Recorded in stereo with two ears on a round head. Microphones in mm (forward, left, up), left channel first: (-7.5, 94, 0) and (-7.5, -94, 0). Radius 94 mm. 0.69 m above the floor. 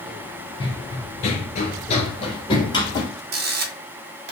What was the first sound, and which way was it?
Running footsteps, 25° left (ahead or behind).